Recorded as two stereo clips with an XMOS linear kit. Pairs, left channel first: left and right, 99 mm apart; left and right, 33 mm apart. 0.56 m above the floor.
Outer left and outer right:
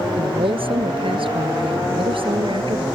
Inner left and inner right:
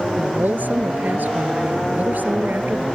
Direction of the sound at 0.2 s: 70° right (ahead or behind).